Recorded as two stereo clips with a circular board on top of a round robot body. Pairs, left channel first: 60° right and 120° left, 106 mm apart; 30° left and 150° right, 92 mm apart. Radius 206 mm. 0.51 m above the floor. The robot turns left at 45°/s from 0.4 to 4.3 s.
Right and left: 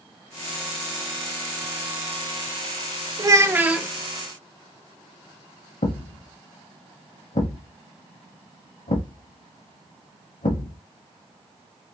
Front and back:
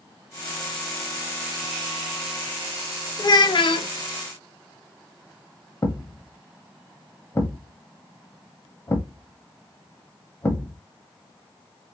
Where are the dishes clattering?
I don't hear dishes clattering.